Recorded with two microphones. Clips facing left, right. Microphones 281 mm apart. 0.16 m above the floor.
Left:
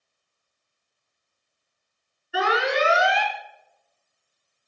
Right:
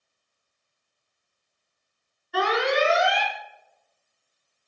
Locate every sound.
2.3 s an alarm: 5° left (ahead or behind), 3.5 m